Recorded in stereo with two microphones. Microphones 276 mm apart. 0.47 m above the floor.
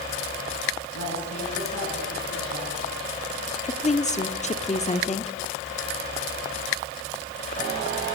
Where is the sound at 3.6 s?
25° left (ahead or behind), 1.2 m.